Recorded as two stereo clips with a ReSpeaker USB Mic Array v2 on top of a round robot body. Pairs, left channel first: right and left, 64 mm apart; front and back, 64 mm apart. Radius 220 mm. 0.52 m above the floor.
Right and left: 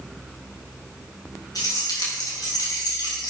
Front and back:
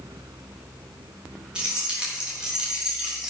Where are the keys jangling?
105° right, 4.5 m; by 3.3 s 100° right, 3 m.